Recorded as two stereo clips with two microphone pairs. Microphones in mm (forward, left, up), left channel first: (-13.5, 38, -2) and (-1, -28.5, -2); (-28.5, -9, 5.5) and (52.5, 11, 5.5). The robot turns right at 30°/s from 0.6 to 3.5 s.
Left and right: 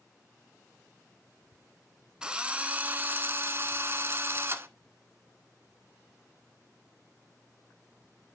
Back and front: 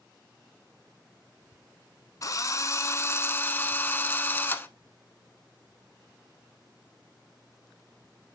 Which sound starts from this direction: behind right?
A drill, at 2.2 s.